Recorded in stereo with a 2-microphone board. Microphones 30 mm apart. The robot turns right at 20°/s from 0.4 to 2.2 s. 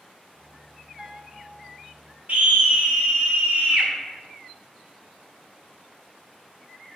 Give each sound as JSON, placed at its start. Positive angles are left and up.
{"t": 1.0, "sound": "a piano", "side_deg": -30, "distance_m": 1.9}
{"t": 2.3, "sound": "a scream", "side_deg": -55, "distance_m": 2.5}